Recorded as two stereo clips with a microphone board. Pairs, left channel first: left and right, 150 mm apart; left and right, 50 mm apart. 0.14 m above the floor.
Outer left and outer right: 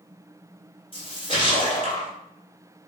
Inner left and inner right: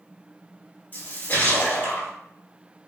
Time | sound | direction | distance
0.9 | a splash | 40° left (ahead or behind) | 1.8 m